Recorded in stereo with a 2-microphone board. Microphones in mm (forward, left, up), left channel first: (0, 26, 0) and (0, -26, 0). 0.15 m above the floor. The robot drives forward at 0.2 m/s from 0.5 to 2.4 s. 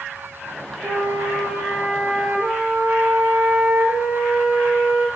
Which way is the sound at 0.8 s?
50° right (ahead or behind).